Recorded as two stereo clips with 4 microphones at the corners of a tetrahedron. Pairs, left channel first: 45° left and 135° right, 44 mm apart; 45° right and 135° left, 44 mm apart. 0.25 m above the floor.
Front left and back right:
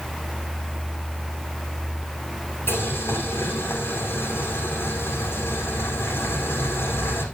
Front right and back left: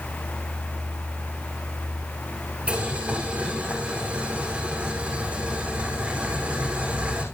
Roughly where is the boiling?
Left.